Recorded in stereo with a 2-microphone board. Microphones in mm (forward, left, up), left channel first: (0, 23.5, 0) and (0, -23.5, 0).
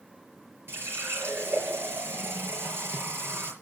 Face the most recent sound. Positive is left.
turn(degrees=-60)  # may be behind; listen again after turning